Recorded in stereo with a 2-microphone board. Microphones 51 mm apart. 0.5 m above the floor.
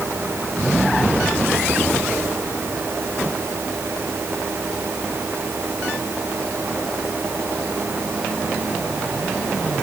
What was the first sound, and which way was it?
Only background noise.